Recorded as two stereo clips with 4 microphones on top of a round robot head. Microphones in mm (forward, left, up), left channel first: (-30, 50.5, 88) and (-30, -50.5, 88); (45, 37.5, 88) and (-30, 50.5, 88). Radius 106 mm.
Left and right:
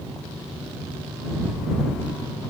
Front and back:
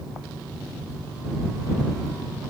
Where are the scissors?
I don't hear scissors.